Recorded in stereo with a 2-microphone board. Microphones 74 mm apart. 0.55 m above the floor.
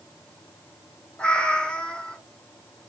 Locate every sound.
1.2 s a cat meowing: 15° left (ahead or behind), 0.8 m